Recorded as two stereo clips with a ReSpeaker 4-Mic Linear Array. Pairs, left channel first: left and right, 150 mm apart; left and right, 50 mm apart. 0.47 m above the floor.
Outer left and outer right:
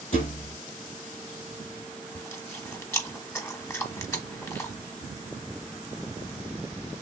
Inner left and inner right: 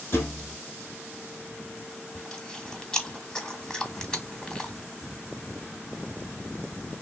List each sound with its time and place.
0.1 s a thud: 55° left (ahead or behind), 1.7 m
2.1 s chewing: 20° left (ahead or behind), 0.8 m